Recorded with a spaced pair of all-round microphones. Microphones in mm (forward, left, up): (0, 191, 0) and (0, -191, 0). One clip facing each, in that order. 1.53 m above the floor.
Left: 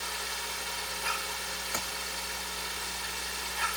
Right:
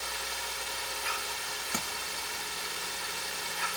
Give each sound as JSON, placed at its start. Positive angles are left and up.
{"t": 1.7, "sound": "tapping", "side_deg": -45, "distance_m": 2.5}